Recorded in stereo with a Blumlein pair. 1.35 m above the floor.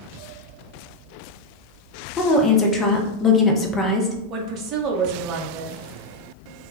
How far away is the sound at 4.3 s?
About 0.7 m.